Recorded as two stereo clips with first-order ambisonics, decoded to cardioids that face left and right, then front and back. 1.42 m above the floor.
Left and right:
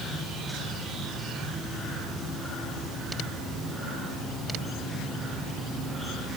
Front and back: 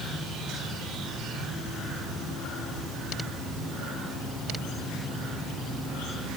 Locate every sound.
Only background noise.